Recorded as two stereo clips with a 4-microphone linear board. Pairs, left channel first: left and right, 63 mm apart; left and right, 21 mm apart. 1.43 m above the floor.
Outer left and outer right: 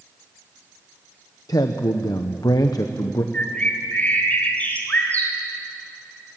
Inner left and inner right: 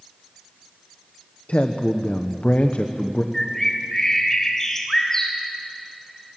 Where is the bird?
25° left (ahead or behind), 3 m.